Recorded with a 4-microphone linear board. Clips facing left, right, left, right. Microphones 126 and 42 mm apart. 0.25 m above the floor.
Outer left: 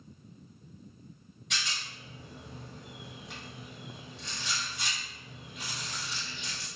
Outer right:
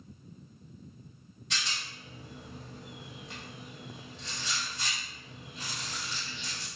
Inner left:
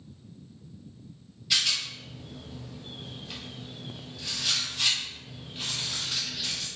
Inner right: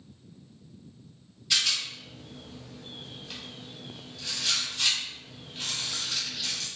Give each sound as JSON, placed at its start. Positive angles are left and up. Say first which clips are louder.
{"t": 1.5, "sound": "a rattle", "louder": "even, even", "side_deg": 0, "distance_m": 1.4}